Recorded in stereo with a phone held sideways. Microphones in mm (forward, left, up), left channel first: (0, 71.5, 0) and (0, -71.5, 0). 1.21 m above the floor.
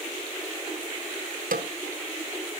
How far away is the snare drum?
About 1.1 m.